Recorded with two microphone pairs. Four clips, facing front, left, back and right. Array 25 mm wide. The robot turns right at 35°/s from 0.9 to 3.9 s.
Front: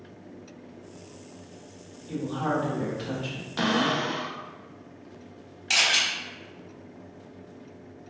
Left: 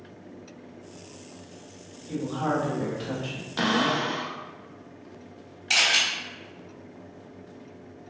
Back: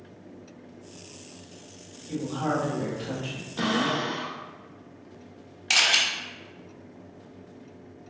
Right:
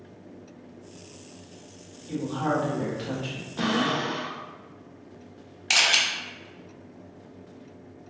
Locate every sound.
2.1 s a woman speaking: 95° right, 1.5 m; by 3.5 s 45° right, 1.5 m
3.6 s a cupboard door: 50° left, 0.6 m; by 4.4 s 60° left, 0.6 m
5.7 s a camera shutter: 115° right, 0.7 m